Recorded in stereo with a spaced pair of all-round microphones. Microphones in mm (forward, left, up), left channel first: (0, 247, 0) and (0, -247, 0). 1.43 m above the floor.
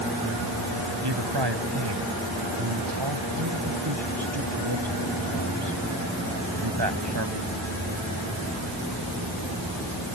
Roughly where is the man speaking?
Right.